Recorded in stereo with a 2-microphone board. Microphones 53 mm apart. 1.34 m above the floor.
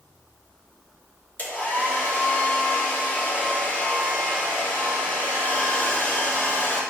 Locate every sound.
1.4 s a hair dryer: 35° left (ahead or behind), 3 m